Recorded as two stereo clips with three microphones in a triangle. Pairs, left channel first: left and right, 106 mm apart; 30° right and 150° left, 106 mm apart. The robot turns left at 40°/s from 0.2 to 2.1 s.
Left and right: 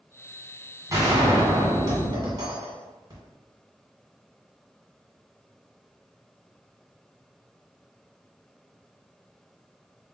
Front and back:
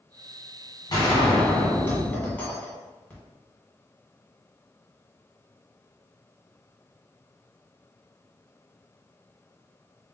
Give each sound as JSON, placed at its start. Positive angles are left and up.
{"t": 0.9, "sound": "a gunshot", "azimuth_deg": -50, "distance_m": 1.9}